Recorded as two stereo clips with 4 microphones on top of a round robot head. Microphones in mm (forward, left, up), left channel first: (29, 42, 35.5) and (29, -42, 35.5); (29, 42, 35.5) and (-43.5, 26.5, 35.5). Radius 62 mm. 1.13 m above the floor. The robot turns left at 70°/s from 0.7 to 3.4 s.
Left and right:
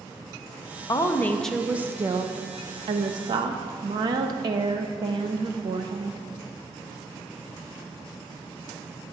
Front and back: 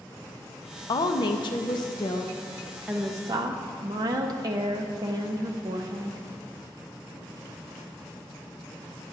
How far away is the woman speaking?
About 0.6 m.